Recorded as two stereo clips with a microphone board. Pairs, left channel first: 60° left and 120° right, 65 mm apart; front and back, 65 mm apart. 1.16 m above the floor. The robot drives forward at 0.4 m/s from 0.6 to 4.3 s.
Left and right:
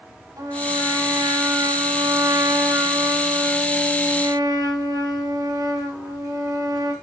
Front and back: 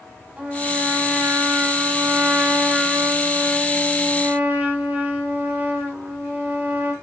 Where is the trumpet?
115° right, 7.5 m; by 6.9 s 125° right, 8 m.